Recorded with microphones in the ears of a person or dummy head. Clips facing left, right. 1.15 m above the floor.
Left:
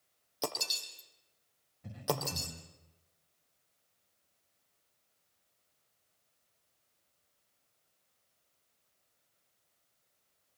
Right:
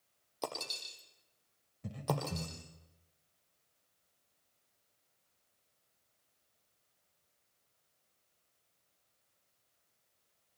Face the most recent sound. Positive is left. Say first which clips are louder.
# left 1 dB
turn(degrees=-55)  # may be behind; listen again after turning